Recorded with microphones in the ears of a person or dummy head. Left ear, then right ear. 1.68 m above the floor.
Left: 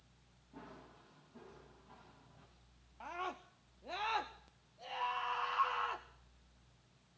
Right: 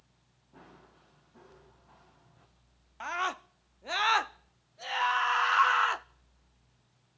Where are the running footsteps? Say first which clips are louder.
Even; 35° right (ahead or behind), 7 m.